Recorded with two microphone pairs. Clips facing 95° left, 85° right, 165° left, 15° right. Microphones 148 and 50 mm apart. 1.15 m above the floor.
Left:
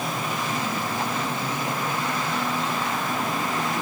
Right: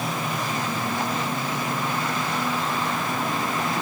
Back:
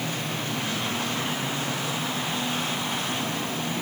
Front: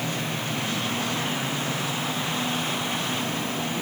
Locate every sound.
Only background noise.